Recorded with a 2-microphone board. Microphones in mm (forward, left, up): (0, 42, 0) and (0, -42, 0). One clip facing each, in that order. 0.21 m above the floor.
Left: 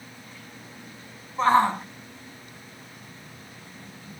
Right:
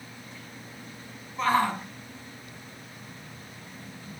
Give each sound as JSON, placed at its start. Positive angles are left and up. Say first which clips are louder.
{"t": 1.4, "sound": "a shout", "louder": "left 5 dB", "side_deg": 30, "distance_m": 1.4}